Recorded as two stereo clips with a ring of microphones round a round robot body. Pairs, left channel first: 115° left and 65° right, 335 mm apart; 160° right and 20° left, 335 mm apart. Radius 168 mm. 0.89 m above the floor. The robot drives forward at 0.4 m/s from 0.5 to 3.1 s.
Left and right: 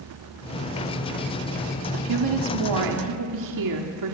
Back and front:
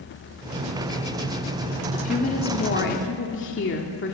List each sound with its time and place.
1.9 s a woman speaking: 90° right, 2 m; by 4.1 s 100° right, 2 m